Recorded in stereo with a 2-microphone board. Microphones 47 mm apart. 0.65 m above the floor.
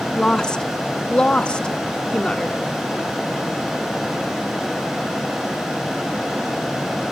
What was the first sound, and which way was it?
A woman speaking, 15° left (ahead or behind).